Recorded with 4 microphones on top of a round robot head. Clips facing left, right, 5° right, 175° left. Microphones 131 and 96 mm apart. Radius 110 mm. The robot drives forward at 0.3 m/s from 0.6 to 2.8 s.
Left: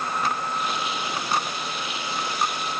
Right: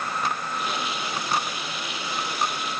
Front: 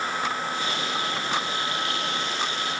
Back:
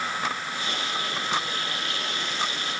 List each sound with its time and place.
Only background noise.